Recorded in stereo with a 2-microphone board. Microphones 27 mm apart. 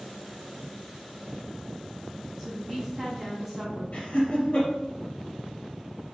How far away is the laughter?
About 1.9 m.